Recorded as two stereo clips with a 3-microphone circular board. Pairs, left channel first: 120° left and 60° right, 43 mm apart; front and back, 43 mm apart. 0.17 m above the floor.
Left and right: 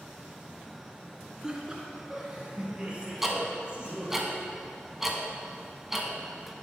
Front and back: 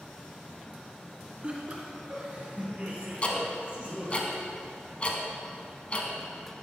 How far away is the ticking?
About 1.1 m.